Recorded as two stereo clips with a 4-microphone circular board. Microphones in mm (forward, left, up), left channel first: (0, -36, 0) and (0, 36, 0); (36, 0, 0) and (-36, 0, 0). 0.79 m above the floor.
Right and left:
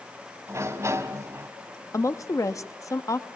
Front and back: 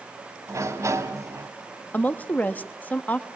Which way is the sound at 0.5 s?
140° left.